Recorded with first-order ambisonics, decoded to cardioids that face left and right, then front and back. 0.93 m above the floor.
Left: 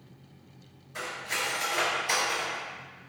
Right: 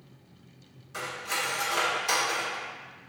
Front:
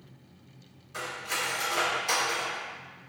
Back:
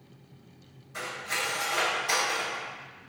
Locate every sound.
0.9 s cutlery clinking: 60° right, 1.7 m